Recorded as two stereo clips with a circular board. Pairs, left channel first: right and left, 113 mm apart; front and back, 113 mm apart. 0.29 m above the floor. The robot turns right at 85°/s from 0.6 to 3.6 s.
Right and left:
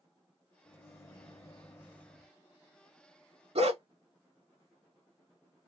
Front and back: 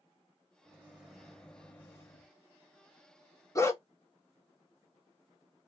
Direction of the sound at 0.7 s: 145° right.